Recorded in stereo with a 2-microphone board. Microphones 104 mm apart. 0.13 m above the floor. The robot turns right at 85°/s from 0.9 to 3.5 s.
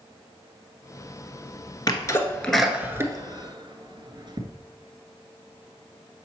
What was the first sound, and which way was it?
A sneeze, 40° left (ahead or behind).